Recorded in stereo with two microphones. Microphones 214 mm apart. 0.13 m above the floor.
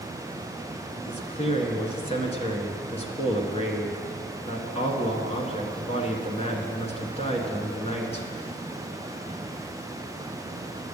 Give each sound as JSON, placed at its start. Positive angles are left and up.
{"t": 1.1, "sound": "a man speaking", "side_deg": 30, "distance_m": 1.2}